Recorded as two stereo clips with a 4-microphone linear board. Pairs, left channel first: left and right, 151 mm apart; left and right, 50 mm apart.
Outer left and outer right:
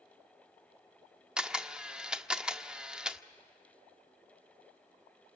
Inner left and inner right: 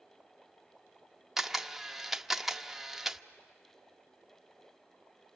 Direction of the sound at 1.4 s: 5° right (ahead or behind).